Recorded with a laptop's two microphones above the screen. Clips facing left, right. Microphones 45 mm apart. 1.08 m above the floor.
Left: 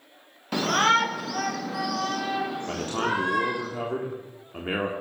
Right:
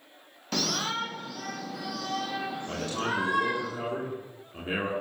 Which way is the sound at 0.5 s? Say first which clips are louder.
Left 9 dB; 10° left (ahead or behind).